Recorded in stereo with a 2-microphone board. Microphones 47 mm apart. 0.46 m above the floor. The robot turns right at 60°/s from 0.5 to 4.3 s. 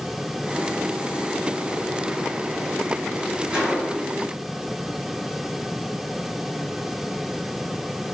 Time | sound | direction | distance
3.5 | a gunshot | 20° right (ahead or behind) | 1.3 m